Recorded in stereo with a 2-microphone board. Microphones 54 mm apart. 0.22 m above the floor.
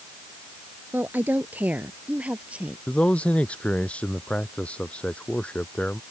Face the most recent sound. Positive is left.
turn(degrees=20)  # may be behind; listen again after turning